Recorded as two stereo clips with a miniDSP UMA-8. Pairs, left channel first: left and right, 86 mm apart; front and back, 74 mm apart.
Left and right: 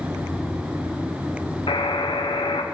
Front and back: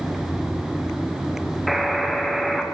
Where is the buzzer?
90° left, 0.8 m.